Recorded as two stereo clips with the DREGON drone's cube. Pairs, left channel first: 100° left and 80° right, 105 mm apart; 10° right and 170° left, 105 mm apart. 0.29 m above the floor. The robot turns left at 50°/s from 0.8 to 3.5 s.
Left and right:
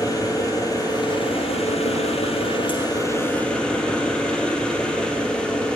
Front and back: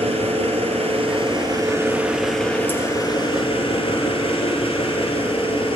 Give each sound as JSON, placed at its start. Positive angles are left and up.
{"t": 0.0, "sound": "an engine running", "azimuth_deg": 155, "distance_m": 2.5}